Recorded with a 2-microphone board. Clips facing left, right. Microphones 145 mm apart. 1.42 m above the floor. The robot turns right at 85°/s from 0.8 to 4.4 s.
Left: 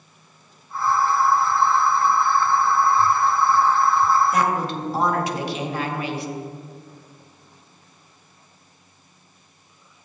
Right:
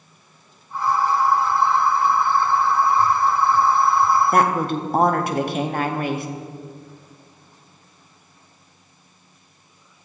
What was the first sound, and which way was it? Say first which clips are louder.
A woman speaking: right 3 dB; 55° right (ahead or behind).